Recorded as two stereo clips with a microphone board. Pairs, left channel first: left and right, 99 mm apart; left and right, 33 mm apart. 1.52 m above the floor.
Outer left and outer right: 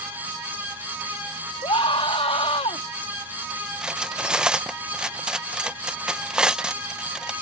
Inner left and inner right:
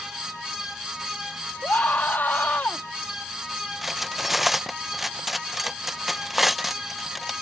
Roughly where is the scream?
Left.